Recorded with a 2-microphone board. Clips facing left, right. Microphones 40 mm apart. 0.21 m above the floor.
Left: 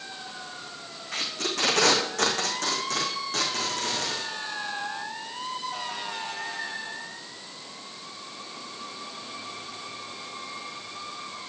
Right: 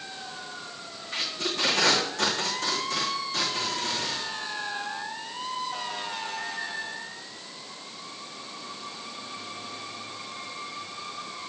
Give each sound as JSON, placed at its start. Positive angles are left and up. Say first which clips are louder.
{"t": 1.1, "sound": "tape being pulled", "louder": "even", "side_deg": 60, "distance_m": 3.0}